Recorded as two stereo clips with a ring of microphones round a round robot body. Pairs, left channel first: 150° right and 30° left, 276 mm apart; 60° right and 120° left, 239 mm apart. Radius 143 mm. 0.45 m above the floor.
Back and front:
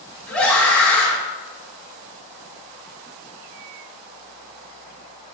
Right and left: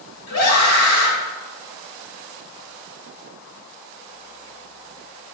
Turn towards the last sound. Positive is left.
turn(degrees=-65)